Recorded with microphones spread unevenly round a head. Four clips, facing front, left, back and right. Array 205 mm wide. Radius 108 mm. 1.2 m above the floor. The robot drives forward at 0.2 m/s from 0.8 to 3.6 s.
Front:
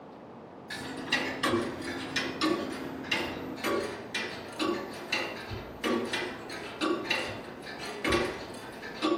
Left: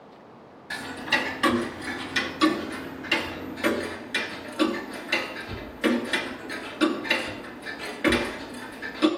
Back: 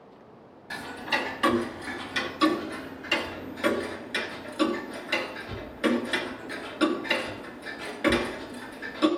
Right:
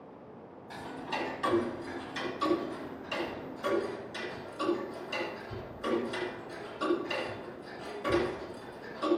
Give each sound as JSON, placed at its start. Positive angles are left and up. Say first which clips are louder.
{"t": 0.7, "sound": "ticking", "louder": "left 8 dB, back 4 dB", "azimuth_deg": 115, "distance_m": 1.8}